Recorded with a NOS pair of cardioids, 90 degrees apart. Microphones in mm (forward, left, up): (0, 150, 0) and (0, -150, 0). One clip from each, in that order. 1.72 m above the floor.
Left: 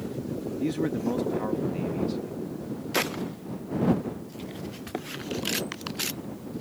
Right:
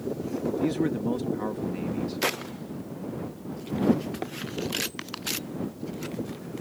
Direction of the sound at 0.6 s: 5° right.